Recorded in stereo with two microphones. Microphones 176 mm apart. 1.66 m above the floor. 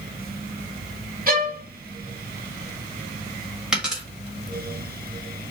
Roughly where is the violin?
Right.